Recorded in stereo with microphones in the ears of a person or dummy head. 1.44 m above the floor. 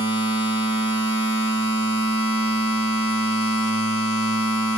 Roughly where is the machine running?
Left.